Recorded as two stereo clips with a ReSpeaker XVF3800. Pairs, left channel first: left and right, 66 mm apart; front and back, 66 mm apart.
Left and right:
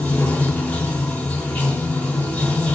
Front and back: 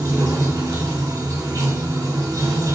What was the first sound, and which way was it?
Running water, 160° left.